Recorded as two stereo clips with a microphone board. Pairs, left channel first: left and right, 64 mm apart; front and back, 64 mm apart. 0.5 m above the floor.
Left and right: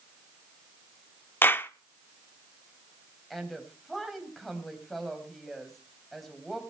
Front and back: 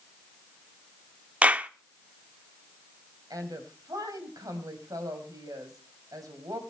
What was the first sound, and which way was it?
A clap, 125° left.